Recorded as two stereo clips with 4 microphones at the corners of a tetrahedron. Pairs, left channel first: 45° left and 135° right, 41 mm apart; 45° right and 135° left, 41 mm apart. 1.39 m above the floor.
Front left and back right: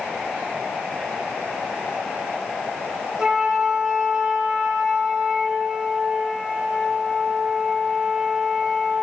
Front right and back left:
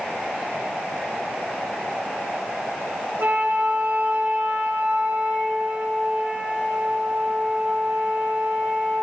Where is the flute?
160° left, 2 m.